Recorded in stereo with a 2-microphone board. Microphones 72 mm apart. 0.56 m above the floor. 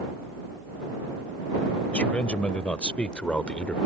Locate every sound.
1.9 s a man speaking: 15° left (ahead or behind)